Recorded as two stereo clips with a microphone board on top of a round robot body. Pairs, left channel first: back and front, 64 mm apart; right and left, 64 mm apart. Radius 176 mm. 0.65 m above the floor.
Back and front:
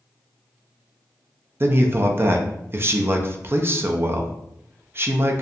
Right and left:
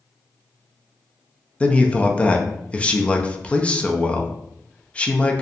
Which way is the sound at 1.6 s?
30° right.